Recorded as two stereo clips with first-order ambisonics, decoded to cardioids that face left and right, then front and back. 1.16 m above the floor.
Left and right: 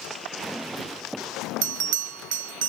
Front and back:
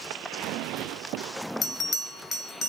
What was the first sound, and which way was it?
A bell, 75° right.